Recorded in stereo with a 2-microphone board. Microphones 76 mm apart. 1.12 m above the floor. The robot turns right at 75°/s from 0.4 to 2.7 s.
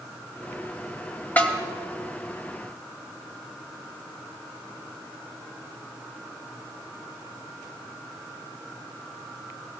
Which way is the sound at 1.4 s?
20° left (ahead or behind).